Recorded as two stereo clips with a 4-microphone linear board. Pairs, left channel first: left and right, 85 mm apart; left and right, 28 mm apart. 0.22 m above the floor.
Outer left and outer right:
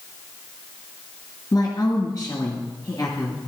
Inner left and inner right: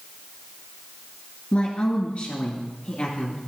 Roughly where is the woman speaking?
Left.